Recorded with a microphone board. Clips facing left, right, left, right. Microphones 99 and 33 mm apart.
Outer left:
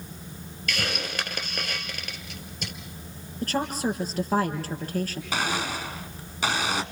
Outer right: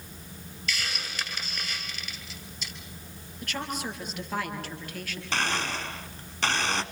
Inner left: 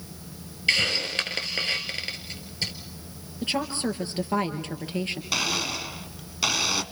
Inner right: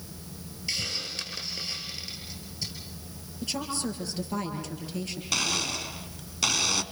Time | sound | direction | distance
0.7 | a hiss | 60° left (ahead or behind) | 2 m
3.4 | a woman speaking | 40° left (ahead or behind) | 4 m
5.3 | a blender | 10° left (ahead or behind) | 1.1 m